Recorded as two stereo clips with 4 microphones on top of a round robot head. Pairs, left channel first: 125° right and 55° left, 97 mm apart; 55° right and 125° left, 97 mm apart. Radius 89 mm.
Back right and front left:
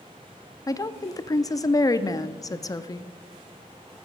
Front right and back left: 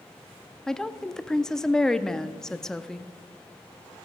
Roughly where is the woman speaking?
Behind right.